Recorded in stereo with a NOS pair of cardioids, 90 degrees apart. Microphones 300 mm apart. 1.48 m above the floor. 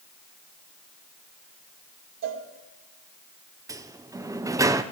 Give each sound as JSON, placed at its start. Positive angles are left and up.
{"t": 2.2, "sound": "a cowbell", "azimuth_deg": -65, "distance_m": 2.0}
{"t": 3.7, "sound": "a sliding door", "azimuth_deg": -10, "distance_m": 0.7}